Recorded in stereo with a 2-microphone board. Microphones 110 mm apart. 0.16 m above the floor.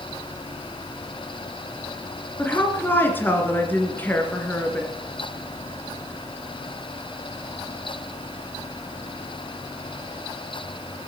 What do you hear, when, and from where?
2.4 s a woman speaking: 20° left (ahead or behind), 2.5 m